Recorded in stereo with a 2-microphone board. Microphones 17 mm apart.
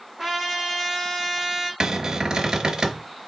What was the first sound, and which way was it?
A trumpet, 20° right (ahead or behind).